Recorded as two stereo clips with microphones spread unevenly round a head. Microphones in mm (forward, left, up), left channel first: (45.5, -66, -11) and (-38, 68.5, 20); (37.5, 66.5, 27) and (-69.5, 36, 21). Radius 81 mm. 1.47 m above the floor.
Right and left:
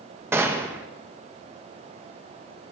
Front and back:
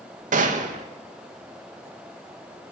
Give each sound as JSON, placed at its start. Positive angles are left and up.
{"t": 0.3, "sound": "a gunshot", "azimuth_deg": -160, "distance_m": 2.5}